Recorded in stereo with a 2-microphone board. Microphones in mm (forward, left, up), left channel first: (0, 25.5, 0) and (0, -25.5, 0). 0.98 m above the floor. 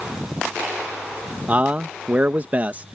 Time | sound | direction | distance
1.5 | a man speaking | 30° right (ahead or behind) | ?